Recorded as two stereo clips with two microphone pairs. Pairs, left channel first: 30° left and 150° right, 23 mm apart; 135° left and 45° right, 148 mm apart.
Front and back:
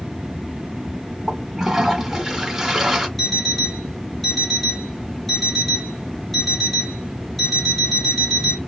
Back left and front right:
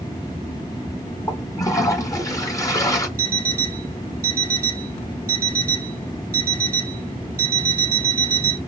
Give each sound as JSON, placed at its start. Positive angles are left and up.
{"t": 1.3, "sound": "a toilet flushing", "azimuth_deg": 160, "distance_m": 1.4}
{"t": 3.2, "sound": "an alarm clock", "azimuth_deg": -45, "distance_m": 1.1}